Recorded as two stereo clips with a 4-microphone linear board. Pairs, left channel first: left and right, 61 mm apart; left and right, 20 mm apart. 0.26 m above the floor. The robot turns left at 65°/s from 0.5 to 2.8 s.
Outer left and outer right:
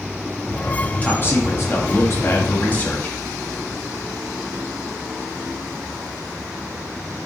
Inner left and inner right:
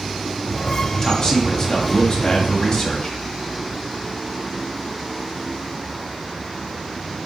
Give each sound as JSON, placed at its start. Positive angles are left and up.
{"t": 1.0, "sound": "a man speaking", "azimuth_deg": 150, "distance_m": 1.6}